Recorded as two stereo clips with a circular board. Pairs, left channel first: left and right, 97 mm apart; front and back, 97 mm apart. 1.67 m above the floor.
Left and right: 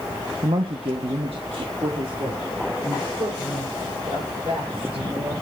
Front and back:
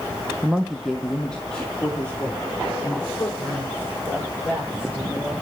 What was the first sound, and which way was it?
A woman speaking, 110° right.